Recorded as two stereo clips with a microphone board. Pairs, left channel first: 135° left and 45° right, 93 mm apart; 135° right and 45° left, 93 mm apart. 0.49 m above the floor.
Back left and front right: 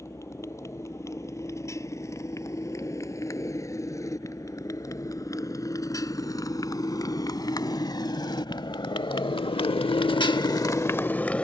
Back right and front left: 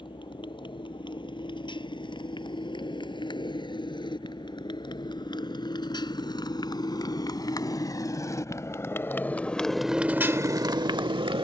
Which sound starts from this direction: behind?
A motorcycle, at 0.0 s.